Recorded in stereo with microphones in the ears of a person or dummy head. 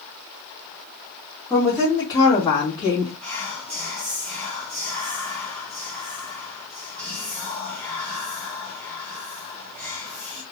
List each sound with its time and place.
1.5 s a woman speaking: 10° left (ahead or behind), 2 m; by 3.1 s 35° left (ahead or behind), 1.4 m
3.2 s whispering: 5° left (ahead or behind), 0.8 m